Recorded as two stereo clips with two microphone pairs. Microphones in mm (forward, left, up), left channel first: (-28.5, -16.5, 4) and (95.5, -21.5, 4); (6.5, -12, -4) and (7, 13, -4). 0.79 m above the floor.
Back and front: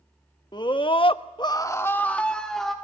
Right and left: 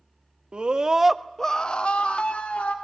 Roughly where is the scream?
Behind left.